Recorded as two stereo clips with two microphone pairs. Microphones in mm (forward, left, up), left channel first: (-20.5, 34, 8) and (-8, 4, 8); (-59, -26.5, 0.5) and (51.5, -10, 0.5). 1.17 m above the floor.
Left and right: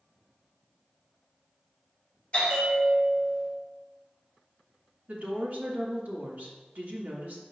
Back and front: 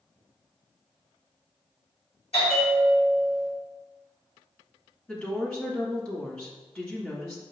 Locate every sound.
2.3 s a bell: 165° left, 2.5 m
5.1 s a woman speaking: 100° right, 2.5 m